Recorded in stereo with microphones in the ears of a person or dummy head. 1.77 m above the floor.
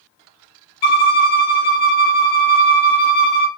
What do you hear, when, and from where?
0.8 s a violin: 30° left (ahead or behind), 0.6 m